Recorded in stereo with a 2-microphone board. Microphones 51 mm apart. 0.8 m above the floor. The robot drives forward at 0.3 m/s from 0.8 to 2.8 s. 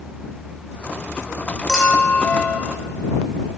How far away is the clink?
About 2 m.